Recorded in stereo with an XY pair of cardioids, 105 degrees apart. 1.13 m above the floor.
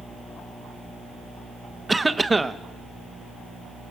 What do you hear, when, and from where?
1.9 s a cough: 15° right, 0.7 m